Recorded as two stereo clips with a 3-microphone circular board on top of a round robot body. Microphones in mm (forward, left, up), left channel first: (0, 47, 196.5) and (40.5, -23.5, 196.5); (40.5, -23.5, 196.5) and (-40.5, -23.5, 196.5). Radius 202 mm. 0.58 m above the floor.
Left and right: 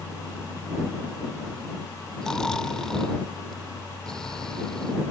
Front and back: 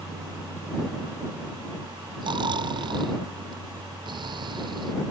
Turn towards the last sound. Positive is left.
turn(degrees=-160)